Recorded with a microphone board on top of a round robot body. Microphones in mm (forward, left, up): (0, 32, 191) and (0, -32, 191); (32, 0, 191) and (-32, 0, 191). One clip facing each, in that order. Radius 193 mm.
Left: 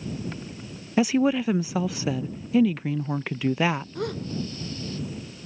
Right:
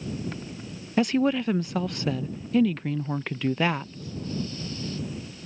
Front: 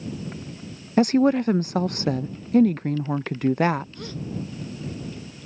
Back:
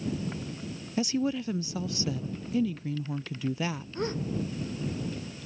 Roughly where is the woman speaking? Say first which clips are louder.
Left 2 dB, front 11 dB; ahead.